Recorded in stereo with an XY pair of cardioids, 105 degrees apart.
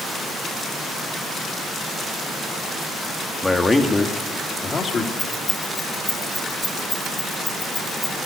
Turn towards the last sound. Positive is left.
turn(degrees=20)